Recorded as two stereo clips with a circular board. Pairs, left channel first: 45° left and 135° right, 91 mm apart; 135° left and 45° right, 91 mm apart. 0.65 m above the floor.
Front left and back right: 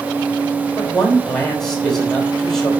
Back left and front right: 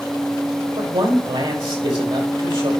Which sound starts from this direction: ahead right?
A man speaking, at 0.8 s.